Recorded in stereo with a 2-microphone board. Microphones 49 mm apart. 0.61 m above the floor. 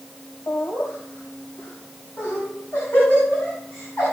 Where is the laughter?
55° left (ahead or behind), 3.5 m; by 4.1 s 45° left (ahead or behind), 6.5 m.